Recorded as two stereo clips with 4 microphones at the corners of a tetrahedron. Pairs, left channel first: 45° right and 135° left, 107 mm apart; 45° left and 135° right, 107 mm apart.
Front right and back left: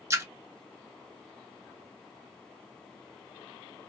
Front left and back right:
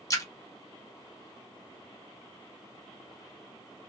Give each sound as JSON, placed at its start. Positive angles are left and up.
{"t": 0.1, "sound": "a splash", "azimuth_deg": 85, "distance_m": 0.8}